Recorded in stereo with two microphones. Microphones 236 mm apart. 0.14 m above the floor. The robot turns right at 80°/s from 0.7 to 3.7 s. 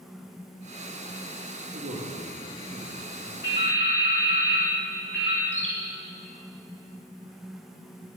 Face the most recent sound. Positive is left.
turn(degrees=30)  # may be behind; listen again after turning